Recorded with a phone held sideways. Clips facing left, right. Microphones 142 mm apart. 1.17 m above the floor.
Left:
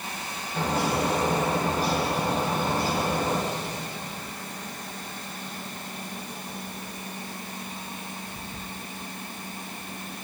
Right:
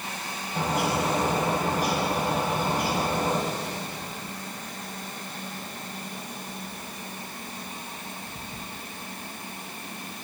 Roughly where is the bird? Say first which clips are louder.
Even; centre.